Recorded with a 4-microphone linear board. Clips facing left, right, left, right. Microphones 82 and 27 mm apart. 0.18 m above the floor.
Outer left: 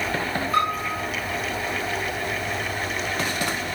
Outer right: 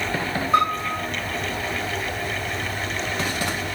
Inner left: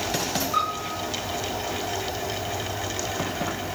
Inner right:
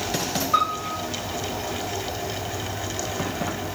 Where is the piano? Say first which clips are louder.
Outer right 4 dB, inner right 6 dB; 25° right (ahead or behind), 7.5 m.